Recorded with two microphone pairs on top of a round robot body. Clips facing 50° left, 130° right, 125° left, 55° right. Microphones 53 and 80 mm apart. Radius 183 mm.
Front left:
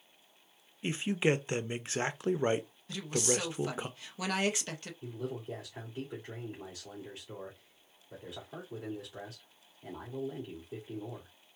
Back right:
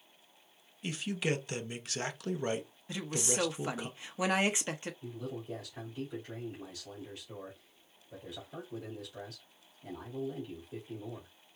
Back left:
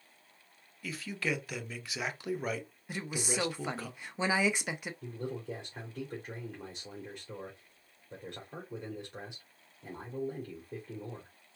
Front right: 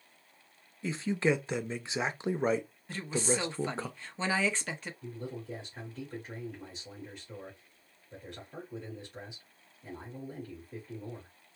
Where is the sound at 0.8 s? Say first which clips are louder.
Front left 4 dB, front right 7 dB; 10° right, 0.8 m.